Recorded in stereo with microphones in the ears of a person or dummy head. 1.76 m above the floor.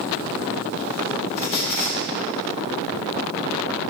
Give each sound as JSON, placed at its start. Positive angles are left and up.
{"t": 1.4, "sound": "a squeak", "side_deg": 50, "distance_m": 1.6}